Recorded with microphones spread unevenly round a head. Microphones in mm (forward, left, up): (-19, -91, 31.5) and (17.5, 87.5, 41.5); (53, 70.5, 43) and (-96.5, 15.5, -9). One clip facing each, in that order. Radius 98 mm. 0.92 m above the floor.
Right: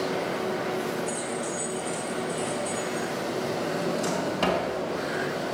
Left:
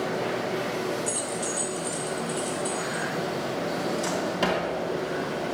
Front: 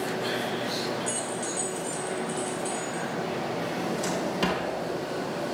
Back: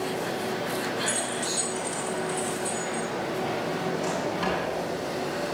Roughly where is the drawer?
Ahead.